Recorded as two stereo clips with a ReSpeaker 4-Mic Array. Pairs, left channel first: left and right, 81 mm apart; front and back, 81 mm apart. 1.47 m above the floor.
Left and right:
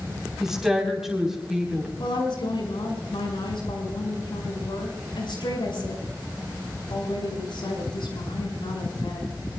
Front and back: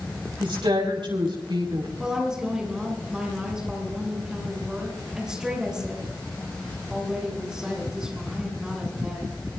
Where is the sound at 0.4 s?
175° right, 4.5 m.